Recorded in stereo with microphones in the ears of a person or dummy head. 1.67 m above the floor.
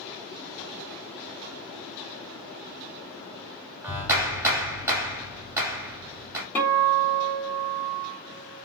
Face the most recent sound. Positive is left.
turn(degrees=15)  # may be behind; listen again after turning